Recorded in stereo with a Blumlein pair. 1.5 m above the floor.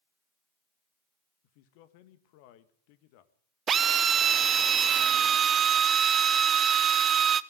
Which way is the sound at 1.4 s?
45° left.